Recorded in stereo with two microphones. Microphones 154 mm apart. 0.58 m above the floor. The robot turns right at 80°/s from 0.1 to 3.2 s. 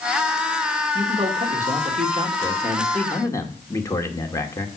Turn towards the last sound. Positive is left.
turn(degrees=25)